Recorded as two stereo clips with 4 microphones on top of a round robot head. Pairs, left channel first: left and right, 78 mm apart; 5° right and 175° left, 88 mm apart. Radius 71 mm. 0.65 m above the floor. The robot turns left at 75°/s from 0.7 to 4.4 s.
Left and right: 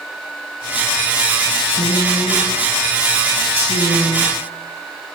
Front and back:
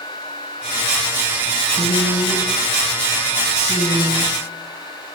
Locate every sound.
1.7 s a woman speaking: 65° left, 5.5 m; by 5.1 s 135° right, 5.5 m